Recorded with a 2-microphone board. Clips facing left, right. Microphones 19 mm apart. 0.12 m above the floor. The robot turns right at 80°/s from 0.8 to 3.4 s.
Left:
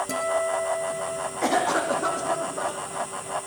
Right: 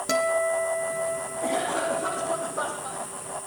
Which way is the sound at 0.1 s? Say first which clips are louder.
Right 5 dB; 135° right.